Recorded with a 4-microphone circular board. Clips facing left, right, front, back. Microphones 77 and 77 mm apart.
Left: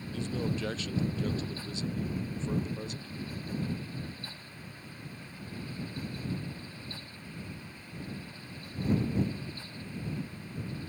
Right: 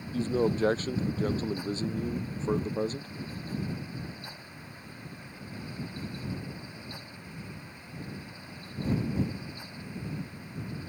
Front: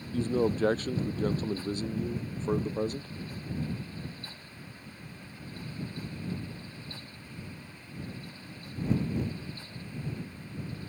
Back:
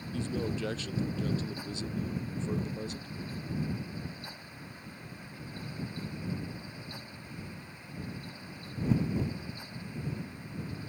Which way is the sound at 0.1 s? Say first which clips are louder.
Right 7 dB, front 7 dB; 40° right.